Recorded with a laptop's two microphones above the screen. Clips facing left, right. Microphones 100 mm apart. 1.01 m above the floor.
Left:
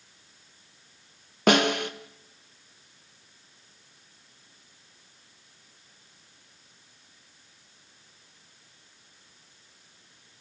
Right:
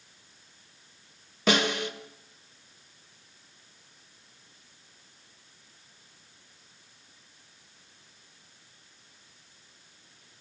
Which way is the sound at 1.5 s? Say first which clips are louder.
Left 4 dB; 65° left (ahead or behind).